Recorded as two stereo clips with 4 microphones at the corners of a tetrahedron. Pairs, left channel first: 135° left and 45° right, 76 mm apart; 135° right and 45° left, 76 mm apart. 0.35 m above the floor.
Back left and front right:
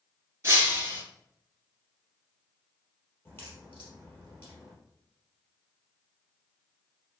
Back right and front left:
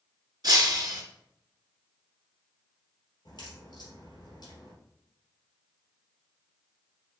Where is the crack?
165° right, 2.5 m.